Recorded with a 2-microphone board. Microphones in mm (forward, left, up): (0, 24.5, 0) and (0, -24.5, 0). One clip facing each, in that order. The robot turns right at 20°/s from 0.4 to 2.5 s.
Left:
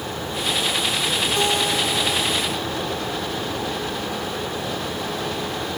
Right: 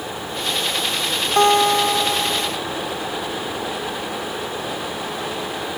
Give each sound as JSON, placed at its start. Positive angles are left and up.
{"t": 1.4, "sound": "a guitar", "side_deg": -50, "distance_m": 1.5}